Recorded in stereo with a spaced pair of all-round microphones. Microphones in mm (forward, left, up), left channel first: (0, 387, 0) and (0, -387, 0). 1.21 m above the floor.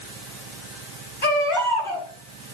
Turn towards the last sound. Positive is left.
turn(degrees=85)